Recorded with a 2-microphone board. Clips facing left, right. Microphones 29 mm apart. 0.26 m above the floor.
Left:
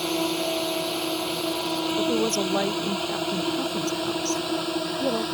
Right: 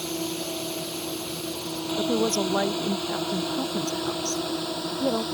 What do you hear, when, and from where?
0.0 s a drone: 45° left (ahead or behind); by 5.3 s 70° left (ahead or behind)
2.0 s a woman speaking: 25° right (ahead or behind)